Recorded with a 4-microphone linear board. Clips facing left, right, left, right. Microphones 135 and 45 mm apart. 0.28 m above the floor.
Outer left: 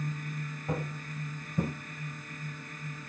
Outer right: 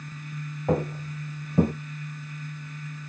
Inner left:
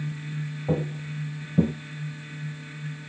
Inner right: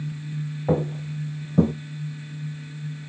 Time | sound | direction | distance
0.7 | footsteps | 65° right (ahead or behind) | 1.2 m